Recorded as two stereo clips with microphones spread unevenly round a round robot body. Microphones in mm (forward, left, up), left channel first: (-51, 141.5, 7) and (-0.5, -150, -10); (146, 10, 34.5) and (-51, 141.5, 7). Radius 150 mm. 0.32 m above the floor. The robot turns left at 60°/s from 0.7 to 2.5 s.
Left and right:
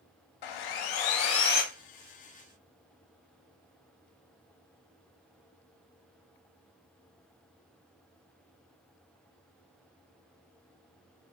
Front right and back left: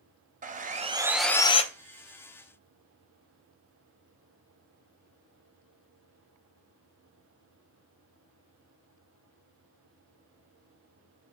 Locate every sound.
0.4 s sawing: 90° left, 0.6 m; by 1.6 s 35° left, 0.6 m